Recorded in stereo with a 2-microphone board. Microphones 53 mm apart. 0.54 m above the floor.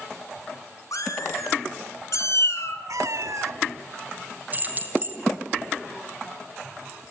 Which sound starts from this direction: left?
A cat meowing, at 0.9 s.